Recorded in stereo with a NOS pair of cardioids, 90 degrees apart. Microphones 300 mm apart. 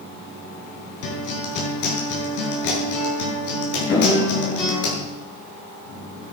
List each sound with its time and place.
1.0 s a guitar: 70° left, 7.5 m
3.9 s an explosion: 40° left, 9 m